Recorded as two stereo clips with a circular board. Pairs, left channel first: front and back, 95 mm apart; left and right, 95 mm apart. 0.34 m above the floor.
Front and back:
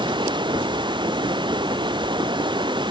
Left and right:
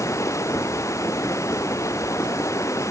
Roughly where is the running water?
Behind left.